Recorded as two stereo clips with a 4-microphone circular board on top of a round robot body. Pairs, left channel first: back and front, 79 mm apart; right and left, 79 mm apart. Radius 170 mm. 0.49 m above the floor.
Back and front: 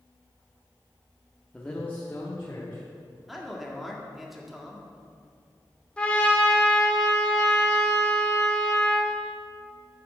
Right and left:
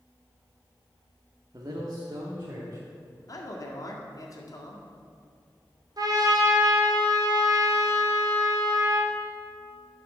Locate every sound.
1.5 s a man speaking: 105° left, 1.2 m; by 3.2 s 135° left, 2 m
3.3 s a man speaking: 90° right, 1.9 m
6.0 s a trumpet: 105° left, 1.7 m